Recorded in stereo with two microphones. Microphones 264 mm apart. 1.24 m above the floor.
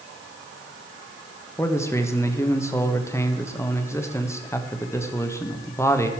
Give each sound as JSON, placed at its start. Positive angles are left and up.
{"t": 1.6, "sound": "a man speaking", "side_deg": 10, "distance_m": 1.2}